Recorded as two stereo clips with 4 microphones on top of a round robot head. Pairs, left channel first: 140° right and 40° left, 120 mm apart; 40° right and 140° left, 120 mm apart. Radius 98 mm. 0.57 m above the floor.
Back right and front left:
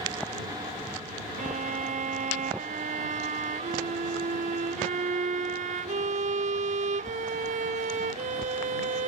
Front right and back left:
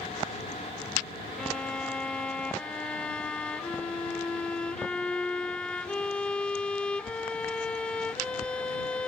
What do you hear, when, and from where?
1.4 s a violin: 45° left